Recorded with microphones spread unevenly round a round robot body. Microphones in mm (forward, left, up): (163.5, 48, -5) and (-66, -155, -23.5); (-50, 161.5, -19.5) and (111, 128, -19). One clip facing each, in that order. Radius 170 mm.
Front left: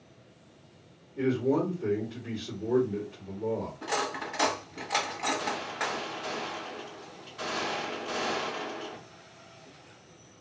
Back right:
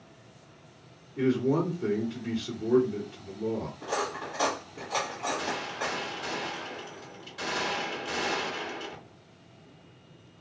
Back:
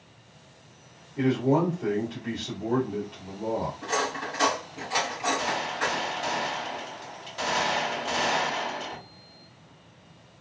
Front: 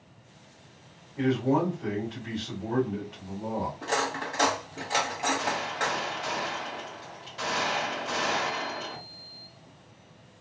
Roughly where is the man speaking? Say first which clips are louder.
Back right 1 dB, back 2 dB; behind right.